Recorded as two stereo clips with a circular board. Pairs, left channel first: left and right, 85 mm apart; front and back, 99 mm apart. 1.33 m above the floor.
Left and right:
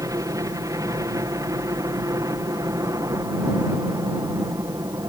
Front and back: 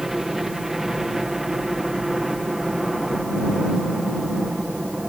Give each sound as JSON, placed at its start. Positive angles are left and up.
{"t": 0.0, "sound": "a helicopter", "azimuth_deg": -95}